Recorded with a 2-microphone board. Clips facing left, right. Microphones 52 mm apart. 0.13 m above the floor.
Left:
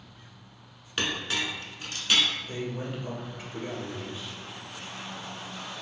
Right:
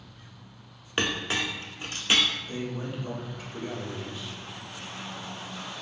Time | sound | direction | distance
1.0 | a clink | 25° right (ahead or behind) | 0.7 m
2.5 | a man speaking | 35° left (ahead or behind) | 1.9 m